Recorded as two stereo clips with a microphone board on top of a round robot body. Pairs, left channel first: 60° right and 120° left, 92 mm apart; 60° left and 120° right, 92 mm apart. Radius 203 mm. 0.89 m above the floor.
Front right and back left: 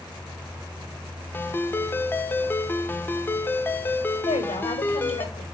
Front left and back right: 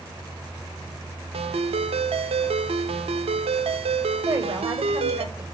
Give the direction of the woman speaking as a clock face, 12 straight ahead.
2 o'clock.